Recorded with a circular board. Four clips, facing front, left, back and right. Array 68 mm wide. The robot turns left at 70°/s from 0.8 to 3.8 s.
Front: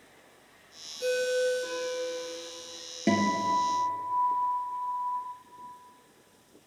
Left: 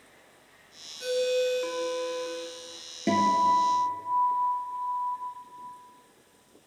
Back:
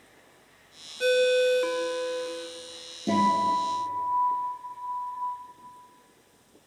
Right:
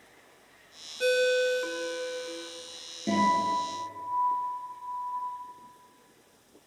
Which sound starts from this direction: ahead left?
A guitar, at 3.1 s.